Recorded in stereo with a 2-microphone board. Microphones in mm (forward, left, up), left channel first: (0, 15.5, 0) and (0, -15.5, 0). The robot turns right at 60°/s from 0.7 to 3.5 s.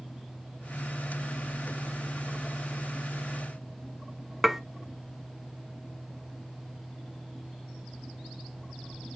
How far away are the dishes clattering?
About 0.5 m.